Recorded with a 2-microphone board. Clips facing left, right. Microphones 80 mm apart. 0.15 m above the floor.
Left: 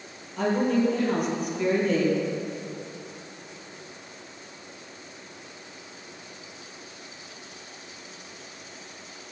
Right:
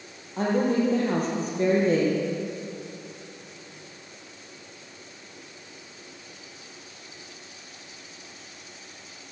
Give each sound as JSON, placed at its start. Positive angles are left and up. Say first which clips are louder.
{"t": 0.4, "sound": "a woman speaking", "louder": "even", "side_deg": -35, "distance_m": 4.0}